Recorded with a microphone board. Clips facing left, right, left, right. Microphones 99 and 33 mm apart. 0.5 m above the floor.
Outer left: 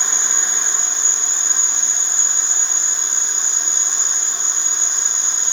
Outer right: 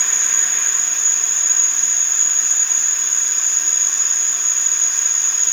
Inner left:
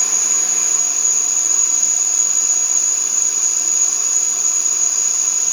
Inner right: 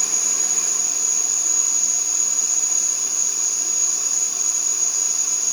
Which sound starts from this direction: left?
An insect, at 0.0 s.